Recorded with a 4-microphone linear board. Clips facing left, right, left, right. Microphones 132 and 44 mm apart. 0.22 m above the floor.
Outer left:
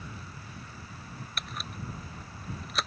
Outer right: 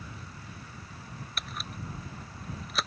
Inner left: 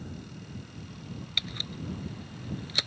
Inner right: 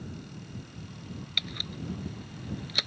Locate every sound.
1.4 s a camera shutter: centre (ahead or behind)